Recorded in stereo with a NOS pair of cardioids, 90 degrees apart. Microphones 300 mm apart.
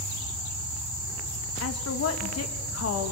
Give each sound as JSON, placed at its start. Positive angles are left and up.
{"t": 1.6, "sound": "a woman speaking", "azimuth_deg": 55, "distance_m": 3.0}